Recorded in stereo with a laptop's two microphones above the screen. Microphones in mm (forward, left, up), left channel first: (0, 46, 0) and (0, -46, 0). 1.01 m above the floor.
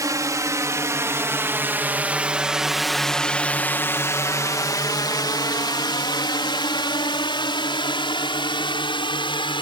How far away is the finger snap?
I don't hear a finger snap.